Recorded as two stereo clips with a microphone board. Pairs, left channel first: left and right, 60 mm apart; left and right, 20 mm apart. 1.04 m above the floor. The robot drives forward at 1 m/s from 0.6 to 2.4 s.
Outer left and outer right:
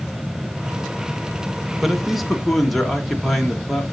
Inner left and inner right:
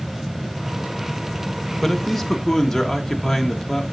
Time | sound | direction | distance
1.8 | a man speaking | centre (ahead or behind) | 0.8 m